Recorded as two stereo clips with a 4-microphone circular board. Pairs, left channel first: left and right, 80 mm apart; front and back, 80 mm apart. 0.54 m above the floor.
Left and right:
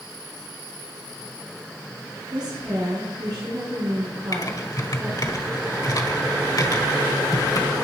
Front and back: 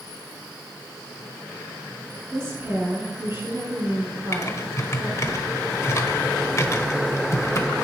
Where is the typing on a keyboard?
50° left, 1.5 m.